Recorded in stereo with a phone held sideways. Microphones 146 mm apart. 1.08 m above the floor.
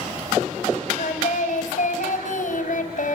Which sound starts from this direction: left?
Singing, at 1.0 s.